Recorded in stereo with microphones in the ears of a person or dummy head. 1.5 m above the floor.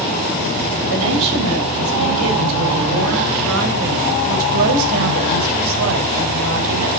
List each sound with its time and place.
0.9 s a woman speaking: 80° right, 8 m; by 6.9 s 75° right (ahead or behind), 5 m